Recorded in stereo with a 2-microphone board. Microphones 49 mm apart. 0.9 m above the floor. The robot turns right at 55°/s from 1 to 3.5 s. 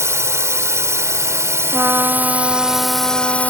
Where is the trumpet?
55° right; by 3.5 s 40° left.